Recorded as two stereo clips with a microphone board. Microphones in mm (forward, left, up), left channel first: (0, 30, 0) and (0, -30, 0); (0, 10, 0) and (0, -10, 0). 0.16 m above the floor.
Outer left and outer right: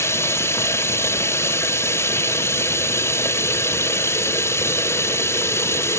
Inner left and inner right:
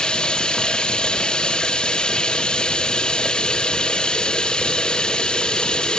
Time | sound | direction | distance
0.0 | running water | 45° left (ahead or behind) | 1.3 m